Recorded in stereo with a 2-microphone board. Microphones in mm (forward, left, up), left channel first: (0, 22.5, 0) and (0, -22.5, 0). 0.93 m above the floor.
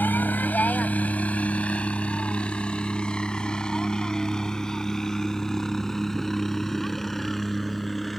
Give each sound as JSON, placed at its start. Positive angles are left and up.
{"t": 0.0, "sound": "a helicopter", "side_deg": 40}